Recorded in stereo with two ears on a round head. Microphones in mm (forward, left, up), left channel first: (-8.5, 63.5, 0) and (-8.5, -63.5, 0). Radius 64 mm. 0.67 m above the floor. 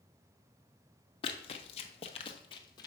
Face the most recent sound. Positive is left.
turn(degrees=30)  # may be behind; listen again after turning